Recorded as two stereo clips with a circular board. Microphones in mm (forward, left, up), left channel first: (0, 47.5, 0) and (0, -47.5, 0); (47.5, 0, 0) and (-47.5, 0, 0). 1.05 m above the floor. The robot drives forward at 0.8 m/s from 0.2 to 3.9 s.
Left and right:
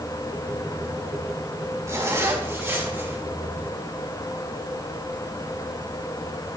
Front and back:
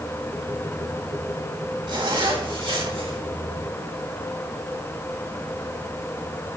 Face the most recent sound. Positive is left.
turn(degrees=-160)